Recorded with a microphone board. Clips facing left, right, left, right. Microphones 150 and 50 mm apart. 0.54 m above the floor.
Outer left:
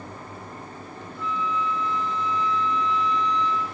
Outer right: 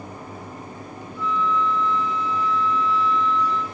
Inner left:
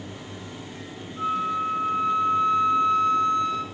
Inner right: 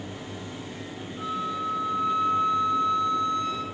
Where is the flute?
45° left (ahead or behind), 1.1 m.